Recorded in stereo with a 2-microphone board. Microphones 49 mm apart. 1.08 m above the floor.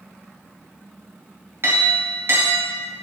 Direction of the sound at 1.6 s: 55° right (ahead or behind).